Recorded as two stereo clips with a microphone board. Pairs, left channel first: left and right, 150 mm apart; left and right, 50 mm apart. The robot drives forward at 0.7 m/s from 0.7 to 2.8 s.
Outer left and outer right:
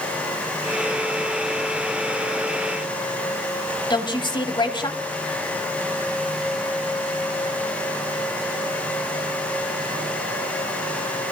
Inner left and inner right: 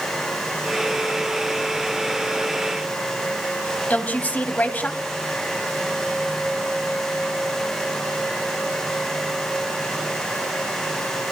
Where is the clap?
No clap in this recording.